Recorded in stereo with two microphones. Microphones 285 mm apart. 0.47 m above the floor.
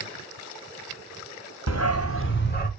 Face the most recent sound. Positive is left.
turn(degrees=30)  # may be behind; listen again after turning